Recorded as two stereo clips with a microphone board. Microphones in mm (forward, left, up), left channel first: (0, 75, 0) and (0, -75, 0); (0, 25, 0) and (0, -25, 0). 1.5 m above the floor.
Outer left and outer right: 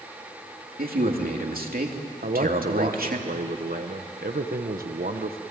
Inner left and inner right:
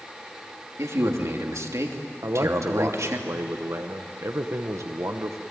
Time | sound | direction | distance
0.8 | a man speaking | 80° right | 3 m
2.2 | a man speaking | 75° right (ahead or behind) | 1.1 m